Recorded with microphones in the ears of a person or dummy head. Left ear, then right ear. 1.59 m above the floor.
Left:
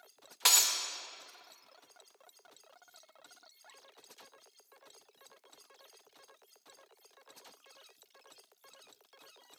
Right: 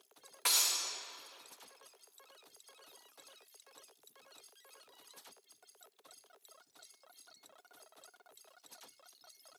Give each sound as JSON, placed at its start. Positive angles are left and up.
{"t": 0.5, "sound": "breaking glass", "side_deg": 30, "distance_m": 1.1}